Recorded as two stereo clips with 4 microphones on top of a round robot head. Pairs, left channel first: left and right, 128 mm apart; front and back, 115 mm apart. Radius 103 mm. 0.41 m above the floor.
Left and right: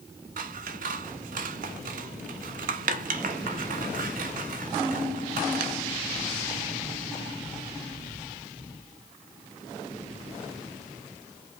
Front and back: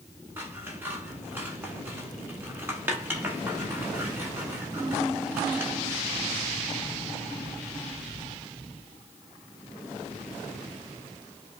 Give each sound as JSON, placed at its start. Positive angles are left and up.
{"t": 0.4, "sound": "scissors", "azimuth_deg": -105, "distance_m": 0.7}